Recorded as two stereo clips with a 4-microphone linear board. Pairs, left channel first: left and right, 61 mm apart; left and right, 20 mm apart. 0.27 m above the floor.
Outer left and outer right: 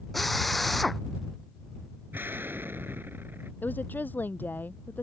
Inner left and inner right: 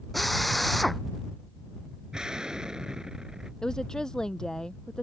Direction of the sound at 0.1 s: Centre (ahead or behind).